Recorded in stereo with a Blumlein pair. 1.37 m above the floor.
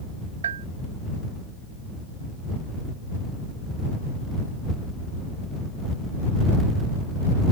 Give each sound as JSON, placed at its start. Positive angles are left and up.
{"t": 0.4, "sound": "a bell", "azimuth_deg": -65}